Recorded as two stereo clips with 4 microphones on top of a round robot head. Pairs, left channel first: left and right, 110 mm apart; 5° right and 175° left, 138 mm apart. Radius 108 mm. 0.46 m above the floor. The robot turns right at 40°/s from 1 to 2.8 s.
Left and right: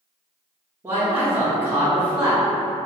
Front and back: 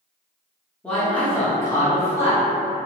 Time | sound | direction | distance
0.8 | a man speaking | 70° right | 0.9 m